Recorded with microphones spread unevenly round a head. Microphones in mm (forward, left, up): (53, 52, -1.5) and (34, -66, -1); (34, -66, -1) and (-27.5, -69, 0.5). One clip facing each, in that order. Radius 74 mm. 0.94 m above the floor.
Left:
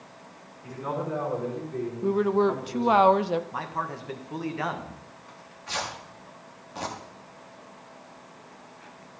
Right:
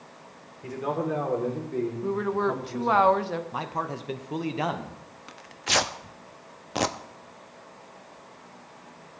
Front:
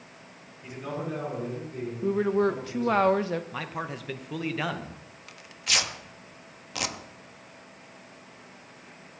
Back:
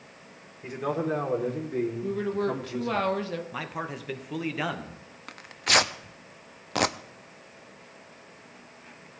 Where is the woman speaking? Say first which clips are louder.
Left 6 dB, front 4 dB; 35° left, 0.7 m.